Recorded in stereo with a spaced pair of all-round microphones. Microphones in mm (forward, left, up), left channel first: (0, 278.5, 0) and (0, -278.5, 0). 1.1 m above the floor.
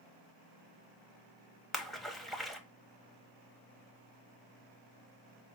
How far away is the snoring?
No snoring in this recording.